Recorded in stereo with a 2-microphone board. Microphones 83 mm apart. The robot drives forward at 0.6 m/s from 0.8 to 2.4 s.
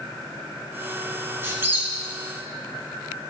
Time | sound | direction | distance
1.4 | a squeak | 25° right (ahead or behind) | 1.5 m